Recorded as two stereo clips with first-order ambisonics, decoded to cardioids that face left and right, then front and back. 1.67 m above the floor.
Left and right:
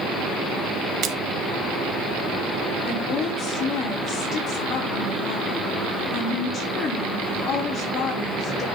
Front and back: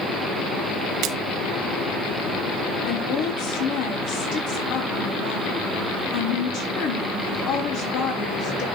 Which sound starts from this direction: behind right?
A splash, at 1.0 s.